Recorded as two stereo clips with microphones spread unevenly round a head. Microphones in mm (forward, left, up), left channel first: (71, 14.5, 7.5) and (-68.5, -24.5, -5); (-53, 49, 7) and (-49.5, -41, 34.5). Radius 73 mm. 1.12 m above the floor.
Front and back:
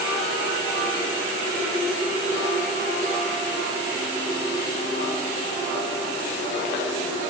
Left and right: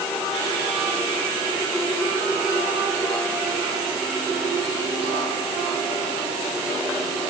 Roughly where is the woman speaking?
I don't hear a woman speaking.